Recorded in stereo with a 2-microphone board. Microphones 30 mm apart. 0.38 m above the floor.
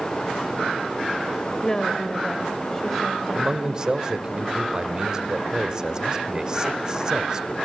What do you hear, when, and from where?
1.6 s a woman speaking: 20° left (ahead or behind), 1.6 m; by 3.8 s centre (ahead or behind), 2.5 m
3.4 s a man speaking: 25° right (ahead or behind), 1.3 m